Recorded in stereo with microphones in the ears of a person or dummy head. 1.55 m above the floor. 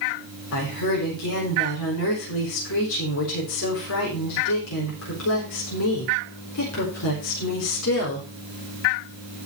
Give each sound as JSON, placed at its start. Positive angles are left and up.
{"t": 0.5, "sound": "a woman speaking", "side_deg": 80, "distance_m": 4.0}